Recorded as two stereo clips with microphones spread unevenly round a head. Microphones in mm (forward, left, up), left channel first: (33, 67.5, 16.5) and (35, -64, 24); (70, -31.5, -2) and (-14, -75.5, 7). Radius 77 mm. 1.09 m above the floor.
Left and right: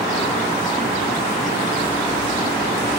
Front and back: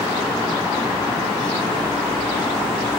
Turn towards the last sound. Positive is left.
No sound to turn to.